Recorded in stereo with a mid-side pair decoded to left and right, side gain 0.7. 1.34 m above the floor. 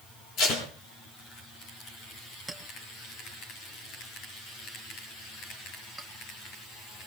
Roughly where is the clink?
Ahead.